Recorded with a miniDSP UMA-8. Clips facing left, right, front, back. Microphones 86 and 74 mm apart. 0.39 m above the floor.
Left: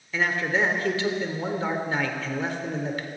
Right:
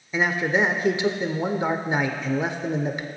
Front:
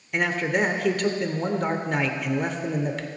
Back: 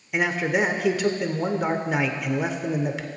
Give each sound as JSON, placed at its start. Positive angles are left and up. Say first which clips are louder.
{"t": 0.1, "sound": "a man speaking", "louder": "right 3 dB, back 1 dB", "azimuth_deg": -105, "distance_m": 0.9}